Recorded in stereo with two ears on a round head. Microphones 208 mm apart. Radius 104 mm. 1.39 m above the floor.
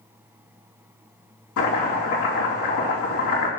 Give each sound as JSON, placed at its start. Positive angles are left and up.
{"t": 1.6, "sound": "chopping", "side_deg": 60, "distance_m": 3.0}